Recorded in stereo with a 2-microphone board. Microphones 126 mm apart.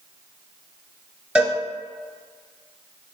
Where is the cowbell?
5° right (ahead or behind), 1.4 m.